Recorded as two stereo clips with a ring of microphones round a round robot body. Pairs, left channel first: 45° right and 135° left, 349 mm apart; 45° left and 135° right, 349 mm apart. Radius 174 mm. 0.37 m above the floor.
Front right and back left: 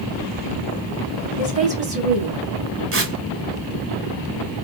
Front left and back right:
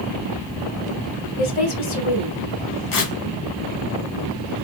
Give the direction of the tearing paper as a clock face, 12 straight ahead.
9 o'clock.